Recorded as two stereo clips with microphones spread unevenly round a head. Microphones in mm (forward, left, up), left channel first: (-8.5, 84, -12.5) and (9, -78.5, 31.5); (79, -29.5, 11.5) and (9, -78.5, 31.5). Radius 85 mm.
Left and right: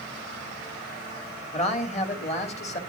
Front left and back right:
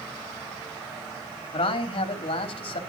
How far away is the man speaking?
About 3 m.